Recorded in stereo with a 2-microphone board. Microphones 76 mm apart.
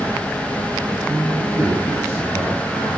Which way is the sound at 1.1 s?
45° right (ahead or behind).